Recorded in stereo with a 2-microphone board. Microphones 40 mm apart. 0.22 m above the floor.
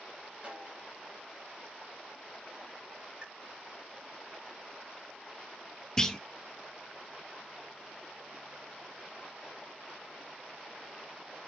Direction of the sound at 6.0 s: 15° left (ahead or behind).